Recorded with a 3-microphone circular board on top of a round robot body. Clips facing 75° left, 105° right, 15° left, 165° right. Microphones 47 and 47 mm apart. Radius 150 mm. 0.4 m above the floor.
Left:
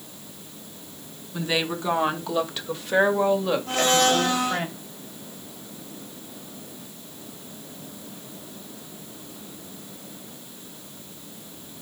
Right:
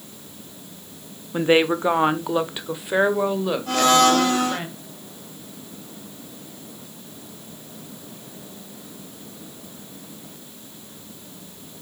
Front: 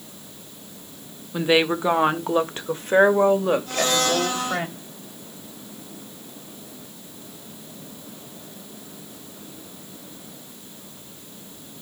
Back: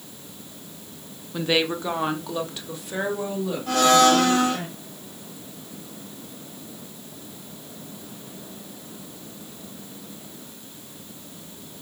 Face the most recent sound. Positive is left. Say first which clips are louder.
# right 6 dB, back 6 dB
turn(degrees=-135)